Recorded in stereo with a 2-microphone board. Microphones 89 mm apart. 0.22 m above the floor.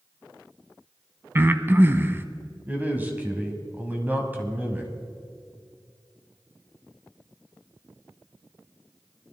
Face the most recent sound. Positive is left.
turn(degrees=-20)  # may be behind; listen again after turning